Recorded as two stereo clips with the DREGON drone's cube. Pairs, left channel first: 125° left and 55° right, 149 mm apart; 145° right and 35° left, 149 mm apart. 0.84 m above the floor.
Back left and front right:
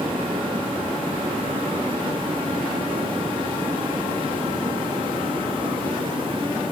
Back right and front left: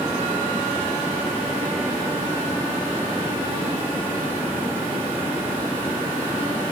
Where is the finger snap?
I don't hear a finger snap.